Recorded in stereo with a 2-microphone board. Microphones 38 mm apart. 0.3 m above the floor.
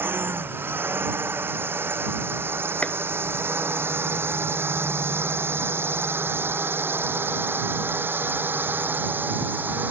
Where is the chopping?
35° left (ahead or behind).